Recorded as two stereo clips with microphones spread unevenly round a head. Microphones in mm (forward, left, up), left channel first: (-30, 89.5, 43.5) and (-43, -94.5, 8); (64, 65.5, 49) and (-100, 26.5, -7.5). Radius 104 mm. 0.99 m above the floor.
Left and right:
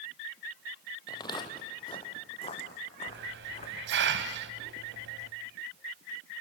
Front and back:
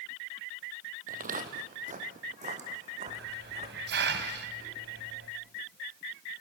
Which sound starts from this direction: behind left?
Footsteps, at 1.1 s.